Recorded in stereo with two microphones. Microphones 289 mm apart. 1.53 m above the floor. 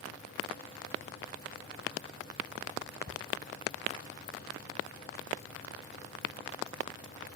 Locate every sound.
3.1 s a cupboard door: 40° right (ahead or behind)